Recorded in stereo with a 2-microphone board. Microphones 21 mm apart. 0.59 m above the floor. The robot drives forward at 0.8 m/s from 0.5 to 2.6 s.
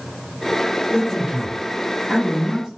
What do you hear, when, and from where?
0.9 s a man speaking: 40° right (ahead or behind), 1.5 m